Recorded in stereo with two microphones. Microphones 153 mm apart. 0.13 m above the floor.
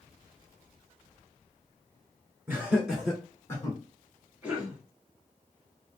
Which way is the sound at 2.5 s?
15° right (ahead or behind).